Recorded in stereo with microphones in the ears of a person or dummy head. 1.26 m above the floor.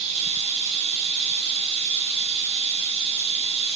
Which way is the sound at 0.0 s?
40° right (ahead or behind).